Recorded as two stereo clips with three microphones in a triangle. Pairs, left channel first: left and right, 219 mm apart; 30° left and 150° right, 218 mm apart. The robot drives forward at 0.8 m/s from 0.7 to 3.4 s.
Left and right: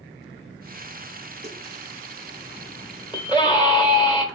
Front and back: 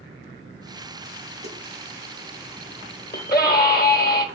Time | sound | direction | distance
1.4 | a snare drum | 150° right | 2.5 m
3.1 | a scream | 25° left | 1.4 m